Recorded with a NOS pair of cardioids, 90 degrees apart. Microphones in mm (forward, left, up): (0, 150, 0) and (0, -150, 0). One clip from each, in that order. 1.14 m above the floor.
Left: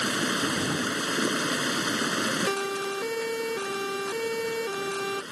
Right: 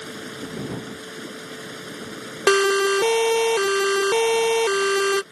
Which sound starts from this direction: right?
A siren, at 2.5 s.